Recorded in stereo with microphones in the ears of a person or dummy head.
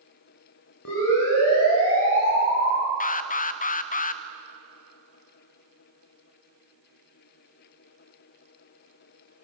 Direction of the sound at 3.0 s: 35° left (ahead or behind).